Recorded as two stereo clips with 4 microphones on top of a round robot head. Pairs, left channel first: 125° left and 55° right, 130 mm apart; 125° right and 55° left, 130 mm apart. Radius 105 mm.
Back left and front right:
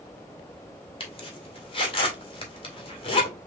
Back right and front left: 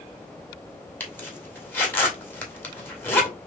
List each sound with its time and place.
1.0 s a zipper: 160° left, 2 m